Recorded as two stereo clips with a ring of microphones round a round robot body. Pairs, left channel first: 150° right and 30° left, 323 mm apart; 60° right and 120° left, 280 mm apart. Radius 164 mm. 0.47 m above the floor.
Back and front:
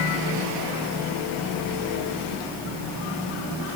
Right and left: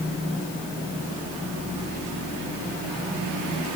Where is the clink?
I don't hear a clink.